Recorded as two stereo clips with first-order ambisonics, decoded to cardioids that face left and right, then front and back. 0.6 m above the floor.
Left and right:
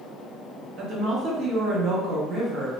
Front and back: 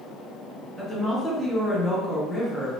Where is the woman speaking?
90° right, 0.7 m.